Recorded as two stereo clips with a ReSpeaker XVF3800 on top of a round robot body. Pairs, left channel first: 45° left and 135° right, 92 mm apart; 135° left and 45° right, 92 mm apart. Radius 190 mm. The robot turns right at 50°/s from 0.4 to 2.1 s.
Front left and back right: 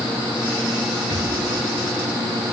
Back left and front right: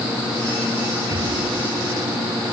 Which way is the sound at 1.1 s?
90° right.